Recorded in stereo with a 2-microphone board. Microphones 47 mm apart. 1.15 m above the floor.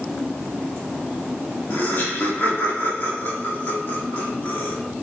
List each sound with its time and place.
1.7 s laughter: 50° left (ahead or behind), 1.6 m